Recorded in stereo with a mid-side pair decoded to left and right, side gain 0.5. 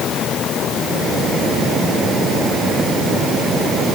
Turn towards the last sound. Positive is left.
No sound to turn to.